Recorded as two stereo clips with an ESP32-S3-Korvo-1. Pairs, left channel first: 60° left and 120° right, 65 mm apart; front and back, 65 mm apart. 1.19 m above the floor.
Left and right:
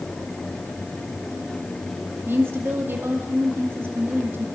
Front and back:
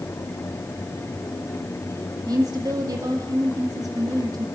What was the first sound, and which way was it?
A woman speaking, 175° right.